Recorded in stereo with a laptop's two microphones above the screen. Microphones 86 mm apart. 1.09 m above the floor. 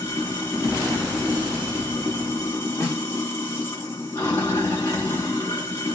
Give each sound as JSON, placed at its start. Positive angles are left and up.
{"t": 0.0, "sound": "running water", "side_deg": 30, "distance_m": 1.0}
{"t": 2.8, "sound": "a snare drum", "side_deg": 20, "distance_m": 1.9}